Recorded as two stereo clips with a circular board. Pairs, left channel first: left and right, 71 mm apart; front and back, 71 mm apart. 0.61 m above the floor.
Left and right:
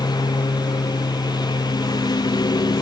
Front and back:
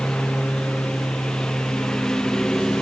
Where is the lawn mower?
80° left.